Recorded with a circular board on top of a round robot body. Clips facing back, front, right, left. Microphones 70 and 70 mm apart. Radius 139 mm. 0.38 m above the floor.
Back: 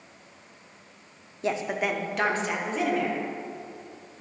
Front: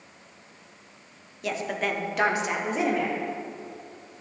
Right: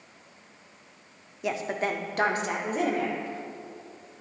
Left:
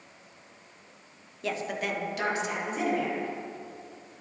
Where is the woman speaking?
155° right, 1.0 m; by 3.2 s 65° right, 1.9 m.